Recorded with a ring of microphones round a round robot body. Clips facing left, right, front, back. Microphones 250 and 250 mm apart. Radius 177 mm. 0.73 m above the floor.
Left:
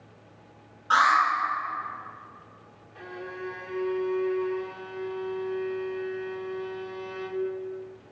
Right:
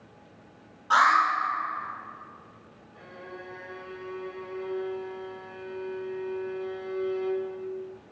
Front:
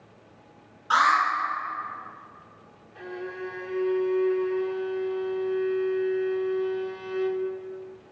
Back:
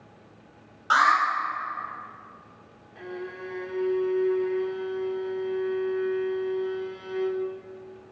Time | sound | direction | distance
0.9 | an alarm | 170° left | 3.5 m
3.0 | a violin | 90° left | 1.0 m